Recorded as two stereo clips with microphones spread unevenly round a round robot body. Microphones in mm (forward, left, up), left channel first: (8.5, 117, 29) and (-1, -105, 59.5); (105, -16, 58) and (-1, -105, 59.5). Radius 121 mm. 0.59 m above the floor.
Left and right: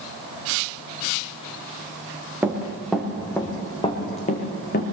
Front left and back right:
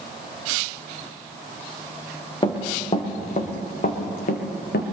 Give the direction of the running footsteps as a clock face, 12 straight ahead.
12 o'clock.